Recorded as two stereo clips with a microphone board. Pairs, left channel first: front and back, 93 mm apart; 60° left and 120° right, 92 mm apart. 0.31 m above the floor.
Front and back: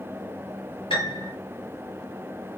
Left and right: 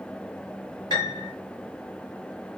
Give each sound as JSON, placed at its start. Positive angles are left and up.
{"t": 0.9, "sound": "a piano", "azimuth_deg": 10, "distance_m": 5.5}